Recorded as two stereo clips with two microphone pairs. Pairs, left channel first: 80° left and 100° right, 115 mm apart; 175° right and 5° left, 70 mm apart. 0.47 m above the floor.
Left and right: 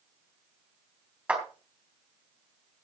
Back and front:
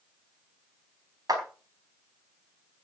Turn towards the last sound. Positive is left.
turn(degrees=-20)